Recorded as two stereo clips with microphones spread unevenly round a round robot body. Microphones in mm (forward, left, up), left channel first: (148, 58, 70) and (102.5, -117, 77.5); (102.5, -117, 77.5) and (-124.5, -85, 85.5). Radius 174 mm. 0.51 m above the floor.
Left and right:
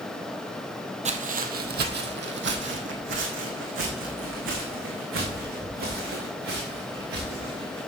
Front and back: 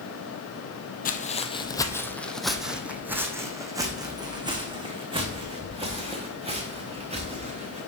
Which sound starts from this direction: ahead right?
Footsteps, at 1.1 s.